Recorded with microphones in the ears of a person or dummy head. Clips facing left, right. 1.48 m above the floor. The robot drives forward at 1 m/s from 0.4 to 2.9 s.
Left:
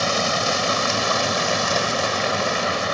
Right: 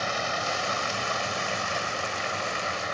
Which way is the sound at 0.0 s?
75° left (ahead or behind).